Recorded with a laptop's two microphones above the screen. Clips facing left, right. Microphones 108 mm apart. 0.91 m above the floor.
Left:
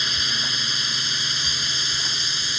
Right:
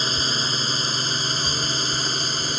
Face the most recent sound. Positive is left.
turn(degrees=-45)  # may be behind; listen again after turning